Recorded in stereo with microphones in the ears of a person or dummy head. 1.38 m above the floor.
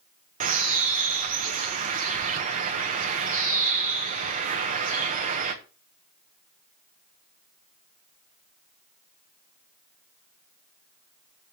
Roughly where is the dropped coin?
No dropped coin in this recording.